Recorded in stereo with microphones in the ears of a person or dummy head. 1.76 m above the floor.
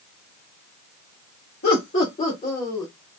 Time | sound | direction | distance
1.6 | laughter | 55° left (ahead or behind) | 1.9 m